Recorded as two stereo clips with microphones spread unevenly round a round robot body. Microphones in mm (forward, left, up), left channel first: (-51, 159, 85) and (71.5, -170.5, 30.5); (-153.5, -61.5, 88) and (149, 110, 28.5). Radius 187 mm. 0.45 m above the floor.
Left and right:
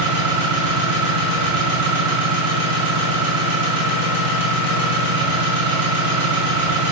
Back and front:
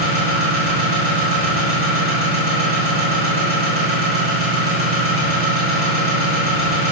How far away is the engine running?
About 6 m.